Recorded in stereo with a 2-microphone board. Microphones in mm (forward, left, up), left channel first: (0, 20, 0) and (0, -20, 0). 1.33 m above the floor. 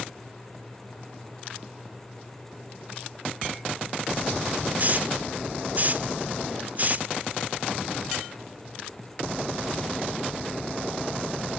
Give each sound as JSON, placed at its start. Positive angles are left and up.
{"t": 4.8, "sound": "a hiss", "side_deg": -40, "distance_m": 0.8}